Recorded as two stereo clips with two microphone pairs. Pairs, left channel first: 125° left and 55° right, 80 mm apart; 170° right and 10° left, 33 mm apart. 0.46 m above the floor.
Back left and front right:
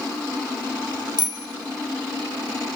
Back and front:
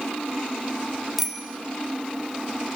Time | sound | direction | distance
1.2 | a bicycle bell | 75° right | 2 m